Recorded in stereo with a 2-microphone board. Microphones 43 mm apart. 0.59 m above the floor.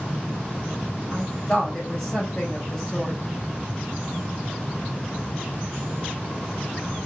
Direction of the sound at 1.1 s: 15° left (ahead or behind).